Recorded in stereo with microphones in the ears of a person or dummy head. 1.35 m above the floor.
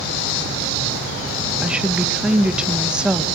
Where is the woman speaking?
10° right (ahead or behind), 1.3 m.